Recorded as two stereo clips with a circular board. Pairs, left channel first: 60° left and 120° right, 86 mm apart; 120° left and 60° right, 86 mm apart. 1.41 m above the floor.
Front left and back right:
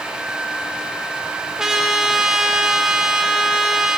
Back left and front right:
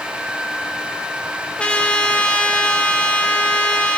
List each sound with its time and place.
1.6 s a trumpet: 170° left, 0.7 m